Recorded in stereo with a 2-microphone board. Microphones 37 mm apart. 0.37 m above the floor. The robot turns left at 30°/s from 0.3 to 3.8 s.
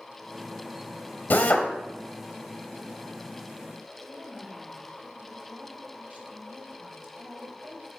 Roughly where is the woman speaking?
Right.